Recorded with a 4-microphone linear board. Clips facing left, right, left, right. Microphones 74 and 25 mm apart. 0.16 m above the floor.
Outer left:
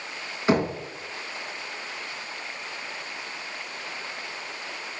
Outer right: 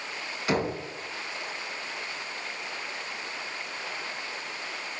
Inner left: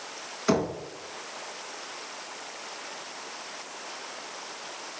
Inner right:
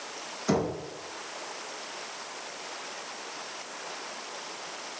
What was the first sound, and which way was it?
Knocking, 35° left (ahead or behind).